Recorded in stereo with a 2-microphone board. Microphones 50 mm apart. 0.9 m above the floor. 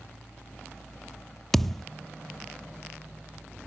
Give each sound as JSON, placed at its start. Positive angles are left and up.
{"t": 1.5, "sound": "a thud", "side_deg": 5}